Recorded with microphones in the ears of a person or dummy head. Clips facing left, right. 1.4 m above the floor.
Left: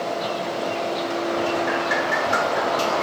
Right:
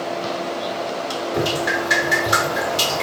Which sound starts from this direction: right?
Dripping, at 1.3 s.